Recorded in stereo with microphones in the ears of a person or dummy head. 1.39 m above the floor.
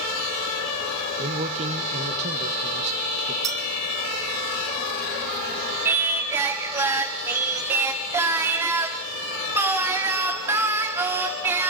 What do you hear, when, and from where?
1.2 s a man speaking: 35° right (ahead or behind), 1.8 m
3.4 s a clink: 20° right (ahead or behind), 5.5 m
5.8 s singing: 15° right (ahead or behind), 1.2 m